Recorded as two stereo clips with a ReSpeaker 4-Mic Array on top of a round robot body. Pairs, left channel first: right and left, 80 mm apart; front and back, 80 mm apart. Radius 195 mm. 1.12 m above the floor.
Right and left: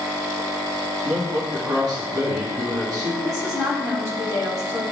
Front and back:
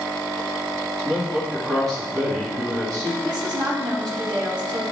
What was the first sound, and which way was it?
A man speaking, 135° left.